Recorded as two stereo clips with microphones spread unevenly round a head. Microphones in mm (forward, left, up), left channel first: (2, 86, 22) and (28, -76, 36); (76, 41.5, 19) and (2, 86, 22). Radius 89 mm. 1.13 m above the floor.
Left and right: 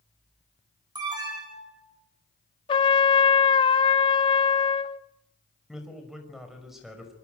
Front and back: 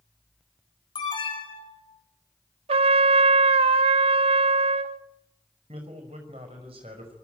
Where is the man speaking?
170° right, 5.5 m.